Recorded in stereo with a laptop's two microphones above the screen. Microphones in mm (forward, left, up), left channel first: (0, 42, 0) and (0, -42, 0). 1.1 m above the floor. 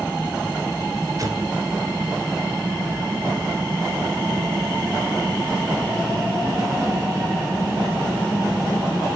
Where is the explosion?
45° right (ahead or behind), 2.5 m.